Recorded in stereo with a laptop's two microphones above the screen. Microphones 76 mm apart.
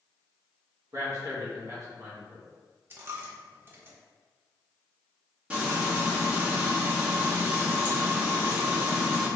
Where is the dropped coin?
30° right (ahead or behind), 0.6 m.